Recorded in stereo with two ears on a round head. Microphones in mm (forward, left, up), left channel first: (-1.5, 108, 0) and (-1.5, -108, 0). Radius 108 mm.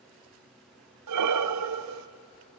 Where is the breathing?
75° right (ahead or behind), 0.9 m.